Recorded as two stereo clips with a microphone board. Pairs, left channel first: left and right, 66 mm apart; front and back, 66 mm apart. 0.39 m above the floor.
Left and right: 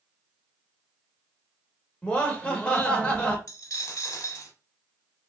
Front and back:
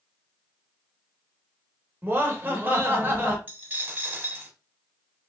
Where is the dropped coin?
120° left, 0.6 m.